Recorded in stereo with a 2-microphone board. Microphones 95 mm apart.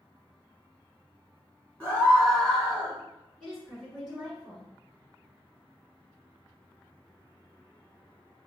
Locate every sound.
1.8 s a scream: 15° left (ahead or behind), 1.3 m; by 3.0 s centre (ahead or behind), 1.4 m
3.4 s a woman speaking: 5° left (ahead or behind), 1.9 m